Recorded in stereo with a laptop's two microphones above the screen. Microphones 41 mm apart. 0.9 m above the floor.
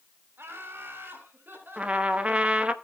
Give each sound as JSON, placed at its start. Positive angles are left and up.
{"t": 0.4, "sound": "laughter", "side_deg": -75, "distance_m": 3.5}
{"t": 1.8, "sound": "a trumpet", "side_deg": -30, "distance_m": 1.2}